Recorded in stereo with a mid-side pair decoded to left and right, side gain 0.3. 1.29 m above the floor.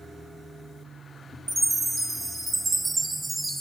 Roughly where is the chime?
Ahead right.